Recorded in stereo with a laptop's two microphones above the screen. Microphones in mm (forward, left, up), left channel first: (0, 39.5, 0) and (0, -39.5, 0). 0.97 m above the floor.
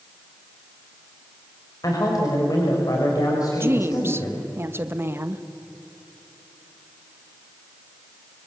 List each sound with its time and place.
1.8 s a woman speaking: 55° left (ahead or behind), 5.5 m
3.6 s a woman speaking: 30° right (ahead or behind), 1.1 m